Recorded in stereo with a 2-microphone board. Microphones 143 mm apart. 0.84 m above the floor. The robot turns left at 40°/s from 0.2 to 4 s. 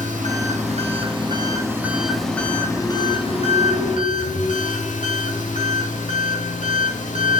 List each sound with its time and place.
0.0 s an engine running: 100° right, 1.2 m; by 7.4 s 105° left, 1.2 m